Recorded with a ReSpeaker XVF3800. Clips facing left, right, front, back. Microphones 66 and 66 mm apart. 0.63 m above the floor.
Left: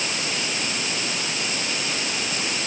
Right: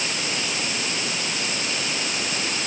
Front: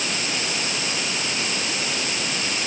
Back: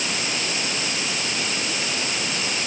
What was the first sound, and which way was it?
Only background noise.